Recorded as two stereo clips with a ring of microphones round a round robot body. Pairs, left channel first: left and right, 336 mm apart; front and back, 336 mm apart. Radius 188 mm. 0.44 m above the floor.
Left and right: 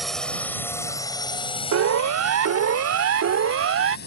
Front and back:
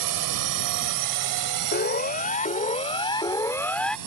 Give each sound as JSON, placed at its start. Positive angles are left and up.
{"t": 0.0, "sound": "a drone", "azimuth_deg": 180}
{"t": 1.7, "sound": "a siren", "azimuth_deg": -60}